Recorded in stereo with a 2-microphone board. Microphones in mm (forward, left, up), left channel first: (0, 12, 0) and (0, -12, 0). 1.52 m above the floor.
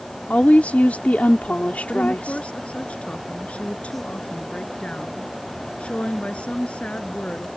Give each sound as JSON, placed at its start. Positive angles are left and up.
{"t": 0.3, "sound": "a woman speaking", "side_deg": 85}
{"t": 1.9, "sound": "a woman speaking", "side_deg": 55}